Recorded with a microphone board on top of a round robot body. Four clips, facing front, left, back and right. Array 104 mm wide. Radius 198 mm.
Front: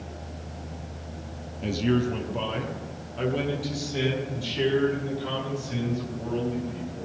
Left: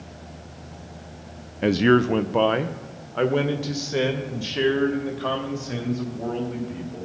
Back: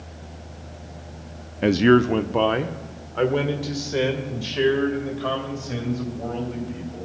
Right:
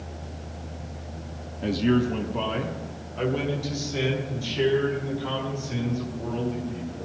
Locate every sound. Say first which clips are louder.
1.6 s a man speaking: left 5 dB, back 9 dB; 145° left, 0.6 m; by 7.0 s 125° left, 4 m